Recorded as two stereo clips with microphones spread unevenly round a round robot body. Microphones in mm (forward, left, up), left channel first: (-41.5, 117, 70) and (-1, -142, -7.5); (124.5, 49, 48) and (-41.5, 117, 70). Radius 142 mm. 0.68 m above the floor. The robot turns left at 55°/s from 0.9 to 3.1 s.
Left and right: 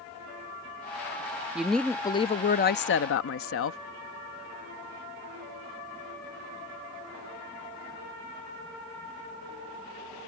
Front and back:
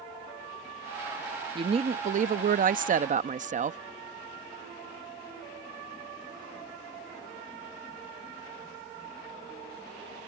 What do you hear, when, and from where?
1.6 s a woman speaking: 145° right; by 3.8 s 130° left